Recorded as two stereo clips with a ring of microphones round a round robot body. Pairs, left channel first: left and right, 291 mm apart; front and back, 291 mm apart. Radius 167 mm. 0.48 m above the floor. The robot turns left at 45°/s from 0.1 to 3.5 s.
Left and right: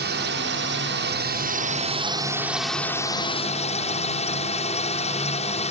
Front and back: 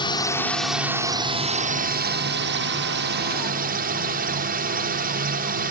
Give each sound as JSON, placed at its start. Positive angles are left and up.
{"t": 0.0, "sound": "a drone", "azimuth_deg": -65}